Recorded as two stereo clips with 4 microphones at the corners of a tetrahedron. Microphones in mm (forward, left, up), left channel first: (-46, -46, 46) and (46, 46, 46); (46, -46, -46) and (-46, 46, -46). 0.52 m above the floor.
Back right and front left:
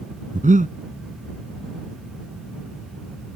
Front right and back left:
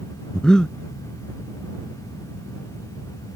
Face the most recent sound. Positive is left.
turn(degrees=40)